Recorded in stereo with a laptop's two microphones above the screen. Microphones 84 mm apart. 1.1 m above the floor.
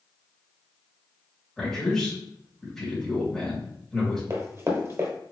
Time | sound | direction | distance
1.6 | a man speaking | 10° left (ahead or behind) | 2.5 m
4.3 | running footsteps | 35° right (ahead or behind) | 1.3 m